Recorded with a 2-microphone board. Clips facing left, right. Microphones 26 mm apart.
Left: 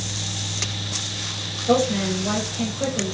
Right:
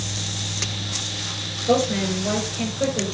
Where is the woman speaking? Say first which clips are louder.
Even; 10° right (ahead or behind), 5.5 m.